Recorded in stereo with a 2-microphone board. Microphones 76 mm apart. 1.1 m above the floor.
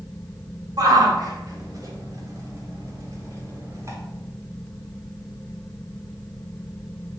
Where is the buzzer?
I don't hear a buzzer.